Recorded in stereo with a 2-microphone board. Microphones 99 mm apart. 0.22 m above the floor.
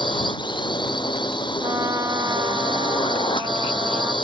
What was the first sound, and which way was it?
A drone, 55° left (ahead or behind).